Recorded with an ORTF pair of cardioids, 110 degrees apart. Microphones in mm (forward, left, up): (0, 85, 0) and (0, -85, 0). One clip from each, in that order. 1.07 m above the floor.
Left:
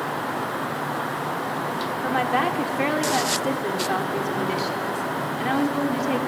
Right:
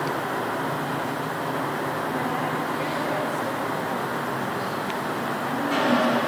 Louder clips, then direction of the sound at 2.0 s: Left 4 dB; 60° left.